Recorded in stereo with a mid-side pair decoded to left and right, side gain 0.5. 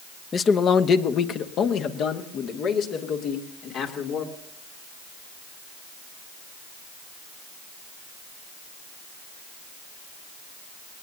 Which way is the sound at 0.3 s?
40° left.